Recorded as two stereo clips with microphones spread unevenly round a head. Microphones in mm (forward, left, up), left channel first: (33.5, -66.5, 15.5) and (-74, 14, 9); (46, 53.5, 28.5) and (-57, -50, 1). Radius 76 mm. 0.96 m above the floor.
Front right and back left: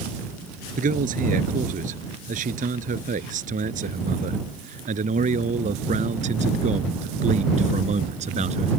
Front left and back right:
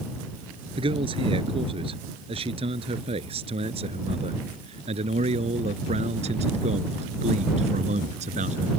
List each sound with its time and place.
0.8 s a man speaking: 170° left; by 8.7 s straight behind